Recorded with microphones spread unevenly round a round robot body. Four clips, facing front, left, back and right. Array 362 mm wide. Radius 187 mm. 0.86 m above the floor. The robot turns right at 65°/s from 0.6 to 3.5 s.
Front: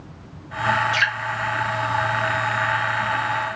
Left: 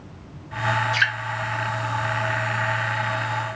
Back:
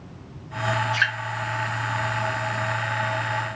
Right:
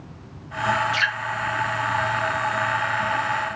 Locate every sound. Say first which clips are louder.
0.9 s dripping: left 1 dB, front 2 dB; 25° left, 2 m; by 1.1 s 40° left, 2 m